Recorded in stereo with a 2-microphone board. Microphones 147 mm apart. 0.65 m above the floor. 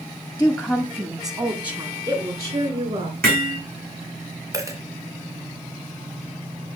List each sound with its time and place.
0.4 s a woman speaking: 10° left (ahead or behind), 0.9 m; by 3.1 s 45° right (ahead or behind), 3 m
3.2 s hammering: 80° right, 4.5 m
4.5 s a dropped coin: 20° right (ahead or behind), 1.6 m